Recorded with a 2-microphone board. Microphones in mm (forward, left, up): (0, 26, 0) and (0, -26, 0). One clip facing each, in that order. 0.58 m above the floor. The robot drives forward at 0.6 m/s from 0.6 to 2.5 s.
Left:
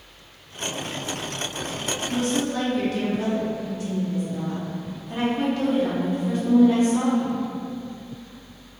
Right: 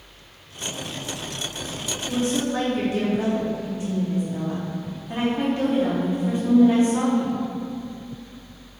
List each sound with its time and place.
2.1 s a woman speaking: 25° right (ahead or behind), 0.8 m